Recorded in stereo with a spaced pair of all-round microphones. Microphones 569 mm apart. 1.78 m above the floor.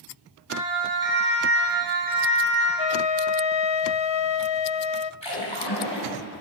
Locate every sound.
0.5 s a siren: 20° right (ahead or behind), 7.5 m; by 2.7 s 15° right (ahead or behind), 10 m
2.8 s a flute: 55° left (ahead or behind), 0.6 m
5.2 s a splash: 50° left (ahead or behind), 8 m